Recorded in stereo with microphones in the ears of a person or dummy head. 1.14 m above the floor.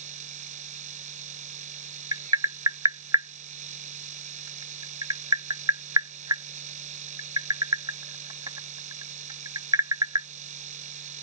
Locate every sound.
0.0 s a machine running: 40° right (ahead or behind)
2.1 s tapping: 20° right (ahead or behind)